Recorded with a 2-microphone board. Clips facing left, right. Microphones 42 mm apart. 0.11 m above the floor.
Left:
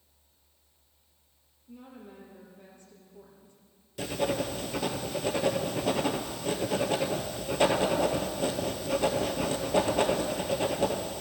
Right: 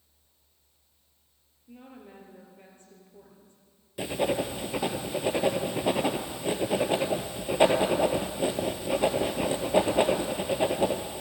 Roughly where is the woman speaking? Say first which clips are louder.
Even; right.